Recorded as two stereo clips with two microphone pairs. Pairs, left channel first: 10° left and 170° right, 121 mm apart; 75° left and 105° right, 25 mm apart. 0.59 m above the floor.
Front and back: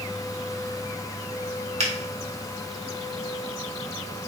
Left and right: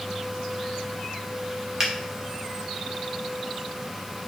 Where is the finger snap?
170° right, 1.2 m.